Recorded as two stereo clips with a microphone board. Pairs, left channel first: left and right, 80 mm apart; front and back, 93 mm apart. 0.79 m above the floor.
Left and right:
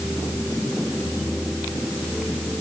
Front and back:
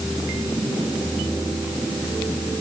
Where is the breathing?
I don't hear breathing.